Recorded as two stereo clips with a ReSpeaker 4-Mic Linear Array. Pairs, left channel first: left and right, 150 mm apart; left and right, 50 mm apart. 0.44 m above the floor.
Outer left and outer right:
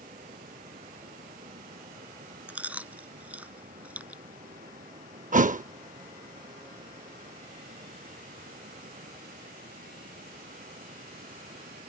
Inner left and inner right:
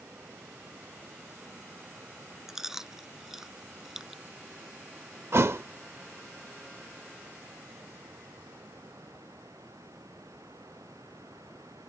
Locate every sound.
0.0 s running water: 75° right (ahead or behind)
2.5 s chewing: 10° right (ahead or behind)
5.3 s a thud: 55° right (ahead or behind)